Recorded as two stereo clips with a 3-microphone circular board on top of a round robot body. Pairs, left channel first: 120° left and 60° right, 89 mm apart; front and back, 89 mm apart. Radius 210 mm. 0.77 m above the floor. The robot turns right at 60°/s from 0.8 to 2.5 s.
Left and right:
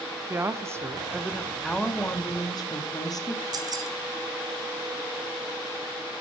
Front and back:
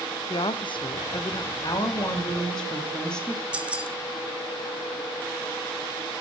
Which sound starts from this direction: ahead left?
A woman speaking, at 1.6 s.